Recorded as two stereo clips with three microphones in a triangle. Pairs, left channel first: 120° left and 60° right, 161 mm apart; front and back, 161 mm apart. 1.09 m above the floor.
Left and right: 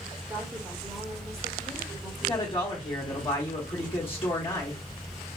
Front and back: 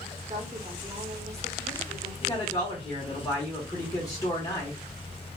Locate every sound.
0.3 s a woman speaking: 130° right, 1.3 m
2.2 s a man speaking: 65° left, 1.6 m